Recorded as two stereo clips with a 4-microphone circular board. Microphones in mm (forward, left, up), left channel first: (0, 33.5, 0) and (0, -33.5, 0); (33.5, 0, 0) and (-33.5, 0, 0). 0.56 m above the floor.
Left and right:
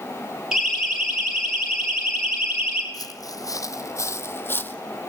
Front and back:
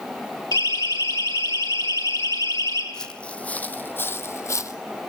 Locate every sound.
0.5 s a siren: 5° right, 9 m; by 2.8 s 15° right, 8.5 m
2.9 s footsteps: 80° left, 1.7 m; by 4.8 s 30° left, 1.3 m